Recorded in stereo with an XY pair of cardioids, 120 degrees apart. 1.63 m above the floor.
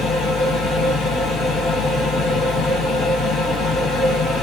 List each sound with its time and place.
0.0 s a machine running: 60° left, 1.4 m